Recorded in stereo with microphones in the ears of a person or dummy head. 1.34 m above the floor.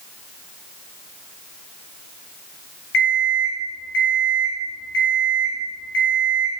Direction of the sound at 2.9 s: 50° left (ahead or behind).